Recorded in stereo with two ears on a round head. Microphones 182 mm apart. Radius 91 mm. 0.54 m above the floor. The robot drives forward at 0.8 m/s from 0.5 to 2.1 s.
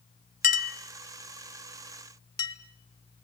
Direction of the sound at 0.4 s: 40° left (ahead or behind).